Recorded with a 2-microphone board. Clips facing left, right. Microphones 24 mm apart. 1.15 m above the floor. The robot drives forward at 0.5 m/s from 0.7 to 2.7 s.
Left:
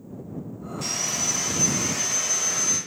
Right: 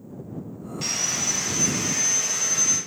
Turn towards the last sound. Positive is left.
turn(degrees=-10)  # may be behind; listen again after turning